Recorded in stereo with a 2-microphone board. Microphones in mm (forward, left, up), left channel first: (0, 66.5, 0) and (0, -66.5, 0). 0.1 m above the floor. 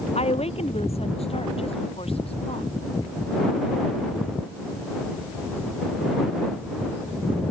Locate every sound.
0.1 s a woman speaking: 50° left (ahead or behind); by 2.7 s 45° left (ahead or behind)